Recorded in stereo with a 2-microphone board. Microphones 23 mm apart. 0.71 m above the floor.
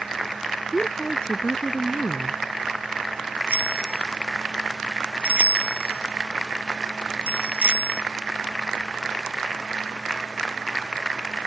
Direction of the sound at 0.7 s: 55° left (ahead or behind).